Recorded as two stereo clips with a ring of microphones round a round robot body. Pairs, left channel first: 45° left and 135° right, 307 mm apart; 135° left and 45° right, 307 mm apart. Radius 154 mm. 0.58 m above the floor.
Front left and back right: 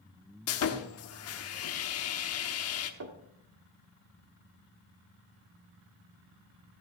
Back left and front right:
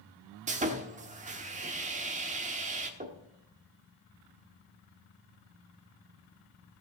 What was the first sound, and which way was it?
Sawing, 15° left.